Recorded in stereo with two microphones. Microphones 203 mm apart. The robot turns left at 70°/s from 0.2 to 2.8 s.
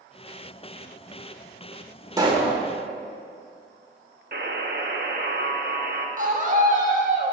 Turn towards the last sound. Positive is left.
turn(degrees=-40)  # may be behind; listen again after turning